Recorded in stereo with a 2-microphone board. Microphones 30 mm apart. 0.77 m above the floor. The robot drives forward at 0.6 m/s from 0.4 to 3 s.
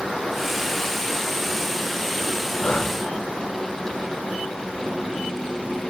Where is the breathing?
50° left (ahead or behind), 0.5 m; by 3.0 s 35° left (ahead or behind), 0.7 m.